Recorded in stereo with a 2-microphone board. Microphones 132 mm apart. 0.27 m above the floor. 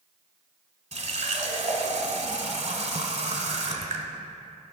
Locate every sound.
0.9 s a running tap: 55° right (ahead or behind), 1.1 m